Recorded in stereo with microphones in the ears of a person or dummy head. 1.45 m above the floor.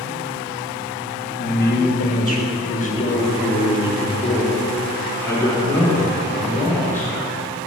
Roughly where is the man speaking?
Left.